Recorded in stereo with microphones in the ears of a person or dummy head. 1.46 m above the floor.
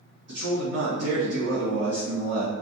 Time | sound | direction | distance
0.3 | a man speaking | 70° right (ahead or behind) | 1.2 m